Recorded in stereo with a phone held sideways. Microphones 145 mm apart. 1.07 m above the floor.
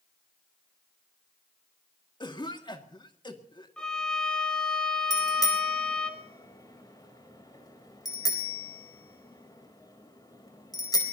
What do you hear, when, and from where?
2.2 s a cough: 30° left (ahead or behind), 2 m
3.8 s a violin: 5° left (ahead or behind), 2.5 m
5.1 s a bicycle bell: 25° left (ahead or behind), 4 m